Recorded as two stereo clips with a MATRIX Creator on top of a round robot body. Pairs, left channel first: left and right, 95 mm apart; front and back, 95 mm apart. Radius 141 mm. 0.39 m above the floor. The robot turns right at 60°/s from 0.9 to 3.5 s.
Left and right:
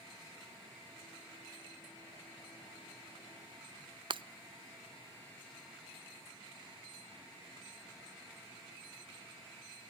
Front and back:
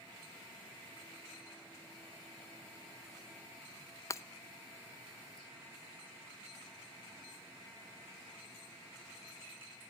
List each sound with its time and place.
4.1 s breaking glass: 60° right, 0.5 m